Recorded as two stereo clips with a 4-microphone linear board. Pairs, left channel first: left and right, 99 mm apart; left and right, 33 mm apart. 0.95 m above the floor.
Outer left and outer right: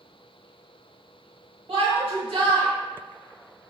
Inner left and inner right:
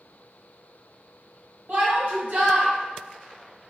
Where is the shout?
60° right (ahead or behind), 1.6 m.